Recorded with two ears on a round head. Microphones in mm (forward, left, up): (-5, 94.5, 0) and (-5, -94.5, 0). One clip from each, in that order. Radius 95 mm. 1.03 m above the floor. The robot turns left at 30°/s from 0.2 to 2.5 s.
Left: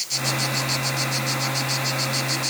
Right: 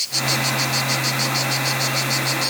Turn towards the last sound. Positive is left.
No sound to turn to.